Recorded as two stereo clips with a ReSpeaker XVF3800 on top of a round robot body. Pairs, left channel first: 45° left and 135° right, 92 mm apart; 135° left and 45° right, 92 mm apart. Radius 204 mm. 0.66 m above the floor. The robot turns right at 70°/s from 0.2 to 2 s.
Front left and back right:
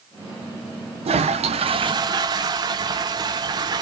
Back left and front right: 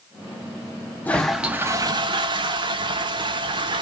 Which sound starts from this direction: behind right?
A toilet flushing, at 1.1 s.